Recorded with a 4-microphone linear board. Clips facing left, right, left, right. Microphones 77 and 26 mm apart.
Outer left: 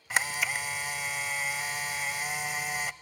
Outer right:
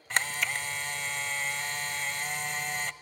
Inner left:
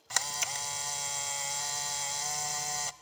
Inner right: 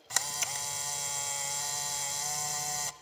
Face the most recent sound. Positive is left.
turn(degrees=5)  # may be behind; listen again after turning